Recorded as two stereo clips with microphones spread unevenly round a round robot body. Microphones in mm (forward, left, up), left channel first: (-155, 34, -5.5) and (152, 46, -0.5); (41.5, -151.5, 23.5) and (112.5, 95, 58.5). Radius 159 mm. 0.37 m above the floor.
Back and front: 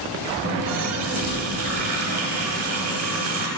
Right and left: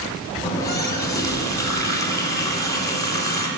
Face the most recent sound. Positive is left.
turn(degrees=-35)